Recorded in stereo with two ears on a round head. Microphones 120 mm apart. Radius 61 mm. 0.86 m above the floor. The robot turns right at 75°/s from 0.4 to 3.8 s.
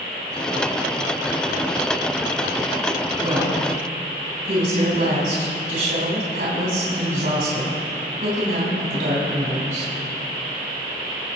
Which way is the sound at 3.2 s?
160° right.